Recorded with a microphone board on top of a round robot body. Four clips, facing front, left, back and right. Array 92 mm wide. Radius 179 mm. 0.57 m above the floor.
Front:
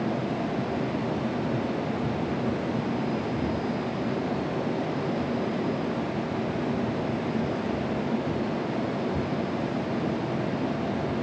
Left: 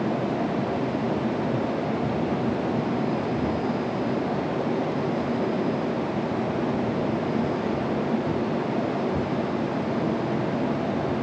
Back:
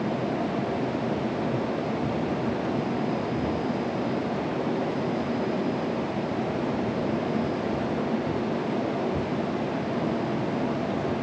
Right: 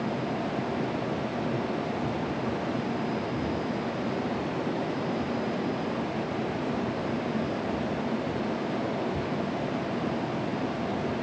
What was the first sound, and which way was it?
Only background noise.